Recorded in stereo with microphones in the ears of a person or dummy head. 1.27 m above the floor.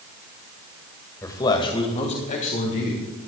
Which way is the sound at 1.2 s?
15° left (ahead or behind).